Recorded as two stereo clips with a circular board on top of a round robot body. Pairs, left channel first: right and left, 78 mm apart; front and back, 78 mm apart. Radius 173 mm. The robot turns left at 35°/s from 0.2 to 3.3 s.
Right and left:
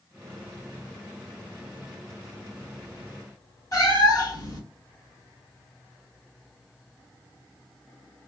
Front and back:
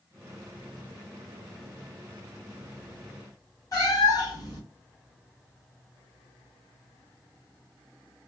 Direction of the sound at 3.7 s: 45° right.